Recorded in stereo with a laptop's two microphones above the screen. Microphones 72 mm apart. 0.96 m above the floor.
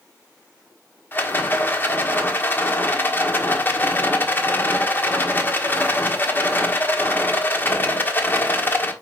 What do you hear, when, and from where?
1.1 s a rattle: 30° left (ahead or behind), 1.5 m